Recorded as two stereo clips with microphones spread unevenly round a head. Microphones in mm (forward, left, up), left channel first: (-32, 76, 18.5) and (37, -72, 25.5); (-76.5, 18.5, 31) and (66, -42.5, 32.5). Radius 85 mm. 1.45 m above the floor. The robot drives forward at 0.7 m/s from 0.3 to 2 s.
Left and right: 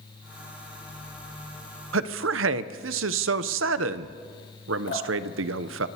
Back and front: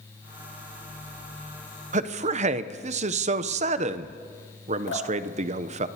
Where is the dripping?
145° left, 3.5 m.